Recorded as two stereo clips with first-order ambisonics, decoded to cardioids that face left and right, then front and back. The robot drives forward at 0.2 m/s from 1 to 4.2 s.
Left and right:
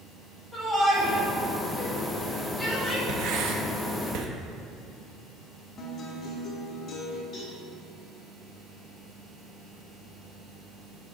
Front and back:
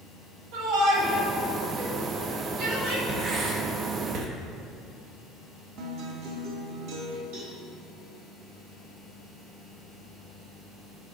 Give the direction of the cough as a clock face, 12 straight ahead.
I don't hear a cough.